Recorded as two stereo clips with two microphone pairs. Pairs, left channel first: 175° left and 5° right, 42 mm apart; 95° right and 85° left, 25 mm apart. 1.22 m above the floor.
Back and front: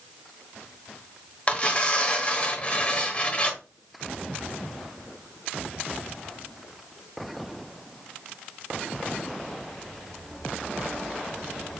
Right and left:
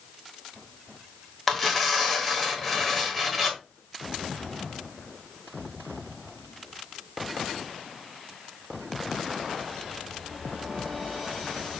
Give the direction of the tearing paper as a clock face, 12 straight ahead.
6 o'clock.